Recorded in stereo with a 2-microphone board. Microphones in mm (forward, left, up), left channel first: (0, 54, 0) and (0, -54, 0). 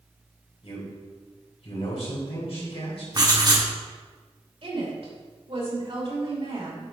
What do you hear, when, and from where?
0.6 s a man speaking: 65° left (ahead or behind), 3 m
3.1 s writing: 40° right (ahead or behind), 1.2 m
4.6 s a woman speaking: 60° right (ahead or behind), 3 m